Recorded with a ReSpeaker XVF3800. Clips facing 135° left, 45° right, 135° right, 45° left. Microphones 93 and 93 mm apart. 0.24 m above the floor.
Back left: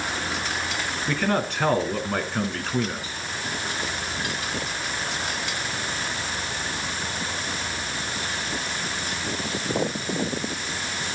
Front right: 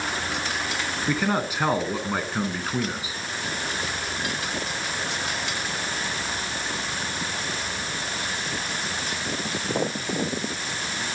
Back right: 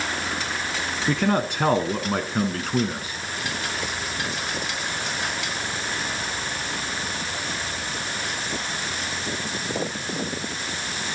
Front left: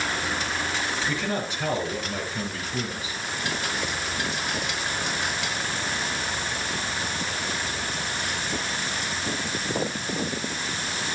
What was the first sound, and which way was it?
A man speaking, 125° right.